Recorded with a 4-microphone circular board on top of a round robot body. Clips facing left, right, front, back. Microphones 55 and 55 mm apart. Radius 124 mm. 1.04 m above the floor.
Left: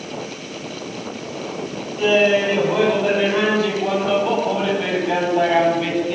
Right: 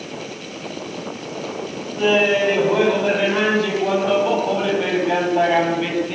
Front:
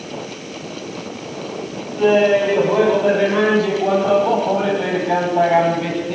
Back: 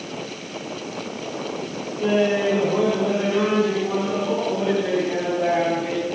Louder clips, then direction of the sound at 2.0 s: Left 1 dB, front 6 dB; 30° right.